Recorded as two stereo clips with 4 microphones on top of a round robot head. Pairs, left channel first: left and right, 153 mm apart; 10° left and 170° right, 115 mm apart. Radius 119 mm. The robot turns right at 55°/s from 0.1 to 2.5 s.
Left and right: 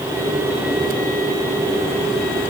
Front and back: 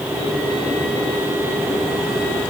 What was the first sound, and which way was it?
Only background noise.